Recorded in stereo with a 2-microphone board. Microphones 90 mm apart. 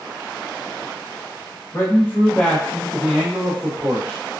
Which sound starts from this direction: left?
A man speaking, at 1.7 s.